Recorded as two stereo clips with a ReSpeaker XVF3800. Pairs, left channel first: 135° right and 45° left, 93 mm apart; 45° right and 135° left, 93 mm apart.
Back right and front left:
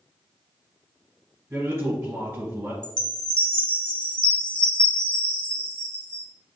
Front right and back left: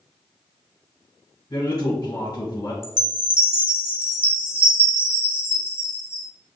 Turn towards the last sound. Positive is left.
turn(degrees=-70)